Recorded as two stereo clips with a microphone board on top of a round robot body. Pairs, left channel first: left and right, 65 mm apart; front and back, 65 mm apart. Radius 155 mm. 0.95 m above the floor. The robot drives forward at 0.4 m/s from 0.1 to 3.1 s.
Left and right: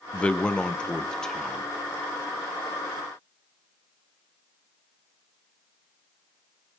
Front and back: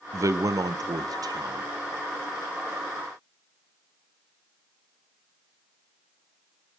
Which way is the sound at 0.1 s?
160° left.